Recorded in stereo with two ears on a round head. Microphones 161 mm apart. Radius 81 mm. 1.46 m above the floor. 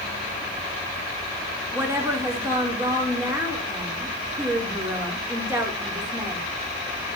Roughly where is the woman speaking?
Centre.